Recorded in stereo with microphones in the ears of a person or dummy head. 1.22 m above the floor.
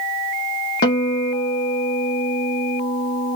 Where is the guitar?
55° left (ahead or behind), 1.2 m.